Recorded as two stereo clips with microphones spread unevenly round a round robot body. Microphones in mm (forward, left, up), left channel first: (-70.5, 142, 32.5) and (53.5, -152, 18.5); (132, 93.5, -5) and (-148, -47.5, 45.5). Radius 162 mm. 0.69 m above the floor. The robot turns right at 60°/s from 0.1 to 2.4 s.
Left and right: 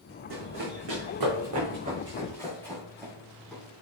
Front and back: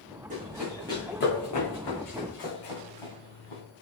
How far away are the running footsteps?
About 3.5 m.